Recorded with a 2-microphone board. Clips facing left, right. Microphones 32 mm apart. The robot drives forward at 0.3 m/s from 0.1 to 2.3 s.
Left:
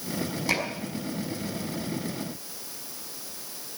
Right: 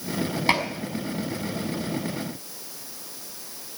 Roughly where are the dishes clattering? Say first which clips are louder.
Right 5 dB; right.